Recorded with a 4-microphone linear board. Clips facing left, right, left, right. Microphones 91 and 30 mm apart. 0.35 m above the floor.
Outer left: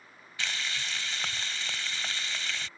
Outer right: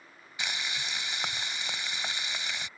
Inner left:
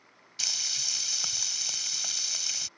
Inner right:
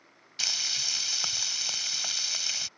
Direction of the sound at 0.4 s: 15° right (ahead or behind).